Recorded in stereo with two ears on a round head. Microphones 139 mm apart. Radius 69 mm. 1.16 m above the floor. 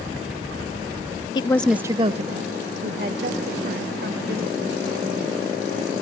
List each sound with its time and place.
1.4 s a woman speaking: 30° left (ahead or behind), 0.5 m; by 6.0 s 85° right, 3.5 m